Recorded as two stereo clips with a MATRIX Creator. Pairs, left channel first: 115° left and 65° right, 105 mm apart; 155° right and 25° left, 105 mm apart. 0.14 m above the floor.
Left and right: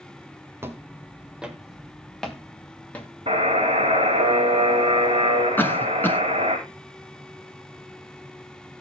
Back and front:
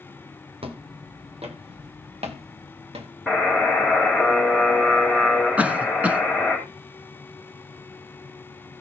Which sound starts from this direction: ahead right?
A buzzer, at 3.3 s.